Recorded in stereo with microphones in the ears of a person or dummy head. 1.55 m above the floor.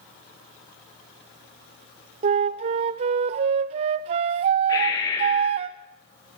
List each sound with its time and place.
2.2 s a flute: 30° right (ahead or behind), 0.5 m
4.7 s breathing: 25° left (ahead or behind), 6.5 m